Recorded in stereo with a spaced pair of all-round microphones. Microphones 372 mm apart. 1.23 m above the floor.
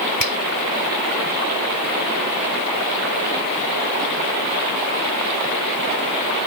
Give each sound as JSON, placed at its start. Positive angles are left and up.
{"t": 0.2, "sound": "a finger snap", "side_deg": 65}